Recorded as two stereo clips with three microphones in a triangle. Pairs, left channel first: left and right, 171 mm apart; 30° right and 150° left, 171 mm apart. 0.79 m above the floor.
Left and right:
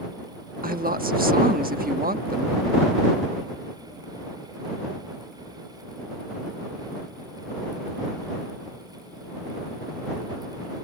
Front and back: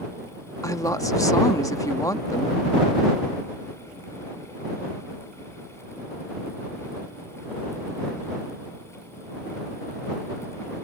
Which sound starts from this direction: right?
A woman speaking, at 0.6 s.